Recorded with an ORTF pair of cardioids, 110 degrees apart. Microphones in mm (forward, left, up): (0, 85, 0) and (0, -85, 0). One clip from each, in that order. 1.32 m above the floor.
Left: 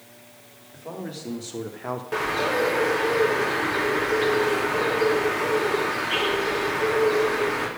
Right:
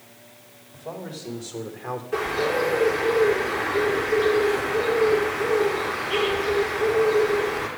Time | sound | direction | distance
0.7 | a man speaking | 20° left | 3 m
2.1 | a bird | 70° left | 3.5 m